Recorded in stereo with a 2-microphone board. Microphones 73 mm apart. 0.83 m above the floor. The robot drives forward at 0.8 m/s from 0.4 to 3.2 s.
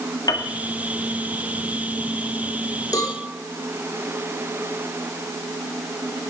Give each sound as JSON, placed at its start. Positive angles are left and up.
{"t": 0.3, "sound": "a piano", "side_deg": 65, "distance_m": 1.6}
{"t": 2.9, "sound": "a cowbell", "side_deg": 55, "distance_m": 2.5}